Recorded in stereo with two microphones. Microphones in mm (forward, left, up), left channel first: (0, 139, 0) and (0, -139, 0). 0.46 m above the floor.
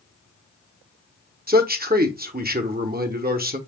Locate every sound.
1.5 s a man speaking: 35° right (ahead or behind), 0.9 m